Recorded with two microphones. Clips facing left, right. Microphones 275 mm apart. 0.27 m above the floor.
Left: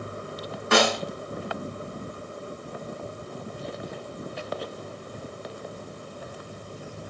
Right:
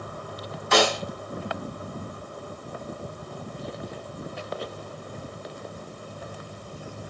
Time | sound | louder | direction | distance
0.7 | a snare drum | even | 65° left (ahead or behind) | 3.5 m